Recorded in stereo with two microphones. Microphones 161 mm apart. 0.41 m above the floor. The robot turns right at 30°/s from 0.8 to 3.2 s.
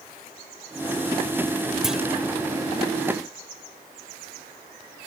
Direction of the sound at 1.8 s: Centre (ahead or behind).